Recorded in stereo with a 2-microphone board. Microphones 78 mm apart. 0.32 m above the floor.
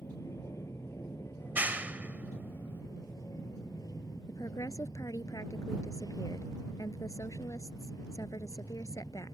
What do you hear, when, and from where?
0.0 s an aircraft: 35° left (ahead or behind); by 9.3 s 55° left (ahead or behind)
1.4 s a clap: 20° right (ahead or behind)
4.3 s a woman speaking: 45° left (ahead or behind)